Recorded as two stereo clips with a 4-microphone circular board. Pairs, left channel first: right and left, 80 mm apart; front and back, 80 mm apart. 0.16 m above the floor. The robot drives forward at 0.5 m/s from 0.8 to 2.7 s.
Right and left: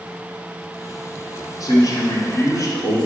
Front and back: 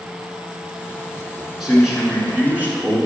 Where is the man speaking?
95° right, 1.6 m; by 3.0 s 115° right, 1.8 m.